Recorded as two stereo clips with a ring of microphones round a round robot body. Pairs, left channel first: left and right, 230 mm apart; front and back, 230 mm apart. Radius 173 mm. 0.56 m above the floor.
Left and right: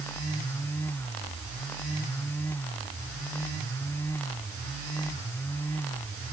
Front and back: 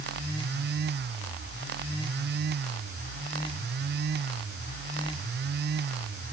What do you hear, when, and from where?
Only background noise.